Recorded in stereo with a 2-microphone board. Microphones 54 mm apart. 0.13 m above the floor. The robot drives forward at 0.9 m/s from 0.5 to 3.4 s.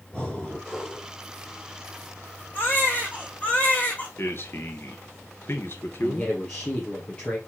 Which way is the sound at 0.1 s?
10° left (ahead or behind).